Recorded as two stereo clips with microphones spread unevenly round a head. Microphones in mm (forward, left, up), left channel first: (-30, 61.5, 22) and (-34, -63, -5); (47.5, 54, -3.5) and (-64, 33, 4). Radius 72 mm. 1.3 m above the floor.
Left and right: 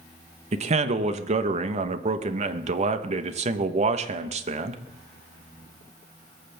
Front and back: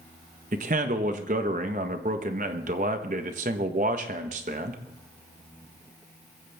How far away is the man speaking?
About 1.2 m.